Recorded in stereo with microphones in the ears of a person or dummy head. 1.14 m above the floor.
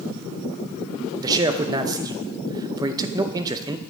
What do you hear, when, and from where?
1.2 s a man speaking: 20° right (ahead or behind), 0.6 m